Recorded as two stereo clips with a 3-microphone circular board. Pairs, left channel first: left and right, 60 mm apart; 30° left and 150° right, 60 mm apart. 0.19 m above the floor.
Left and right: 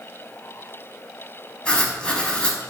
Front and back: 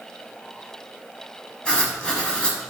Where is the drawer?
I don't hear a drawer.